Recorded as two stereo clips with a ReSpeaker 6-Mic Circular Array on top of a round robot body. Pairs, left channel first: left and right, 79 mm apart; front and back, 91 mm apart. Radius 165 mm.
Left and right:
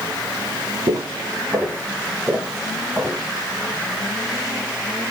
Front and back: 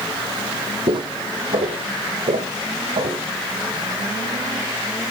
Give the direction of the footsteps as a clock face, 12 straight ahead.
5 o'clock.